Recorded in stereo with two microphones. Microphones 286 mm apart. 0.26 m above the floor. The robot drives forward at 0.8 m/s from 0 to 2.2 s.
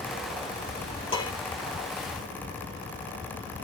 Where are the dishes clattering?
20° left (ahead or behind), 4.5 m.